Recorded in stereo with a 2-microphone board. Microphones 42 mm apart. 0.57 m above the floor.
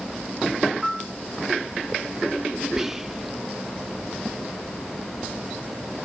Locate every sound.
0.8 s a piano: centre (ahead or behind), 1.0 m
2.8 s whispering: 10° right (ahead or behind), 0.7 m